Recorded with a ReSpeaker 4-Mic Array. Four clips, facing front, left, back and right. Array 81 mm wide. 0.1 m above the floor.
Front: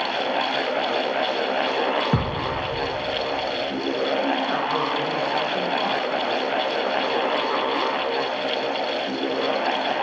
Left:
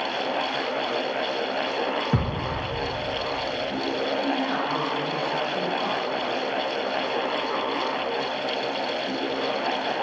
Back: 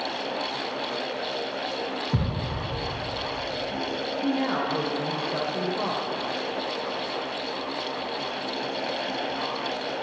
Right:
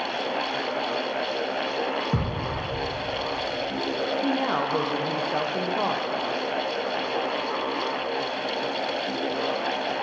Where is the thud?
10° left, 2.5 m.